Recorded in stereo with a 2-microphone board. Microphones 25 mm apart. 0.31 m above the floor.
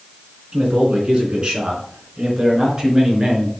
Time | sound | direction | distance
0.5 | a man speaking | 50° right (ahead or behind) | 3 m